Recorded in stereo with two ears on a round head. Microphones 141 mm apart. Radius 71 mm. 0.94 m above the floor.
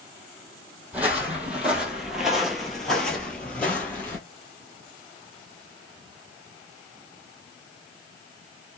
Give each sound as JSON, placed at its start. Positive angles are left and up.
{"t": 0.9, "sound": "footsteps", "side_deg": -10, "distance_m": 1.3}